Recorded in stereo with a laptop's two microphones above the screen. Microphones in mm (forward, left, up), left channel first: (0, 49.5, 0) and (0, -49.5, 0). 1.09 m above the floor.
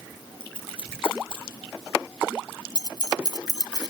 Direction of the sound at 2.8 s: 40° left (ahead or behind).